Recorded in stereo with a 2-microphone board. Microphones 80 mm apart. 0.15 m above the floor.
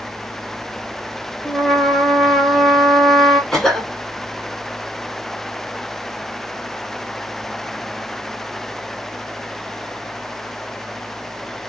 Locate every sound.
1.4 s a trumpet: 5° left (ahead or behind), 0.8 m
3.5 s a cough: 5° left (ahead or behind), 1.5 m